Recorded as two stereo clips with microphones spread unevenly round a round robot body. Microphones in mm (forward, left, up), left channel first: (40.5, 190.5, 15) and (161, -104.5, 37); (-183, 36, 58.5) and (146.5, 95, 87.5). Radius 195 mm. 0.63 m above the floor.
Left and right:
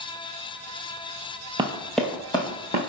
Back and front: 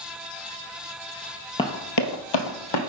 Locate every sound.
1.6 s running footsteps: 95° right, 0.6 m; by 2.8 s 170° right, 1.4 m